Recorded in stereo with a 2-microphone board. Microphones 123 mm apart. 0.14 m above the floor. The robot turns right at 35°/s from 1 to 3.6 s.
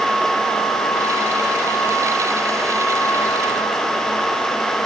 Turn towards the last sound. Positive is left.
No sound to turn to.